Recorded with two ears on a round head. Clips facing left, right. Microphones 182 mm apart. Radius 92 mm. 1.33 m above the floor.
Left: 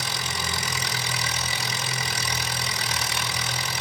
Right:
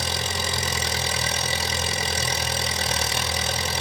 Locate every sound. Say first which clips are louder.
0.0 s an engine running: right 4 dB; 25° right (ahead or behind), 1.7 m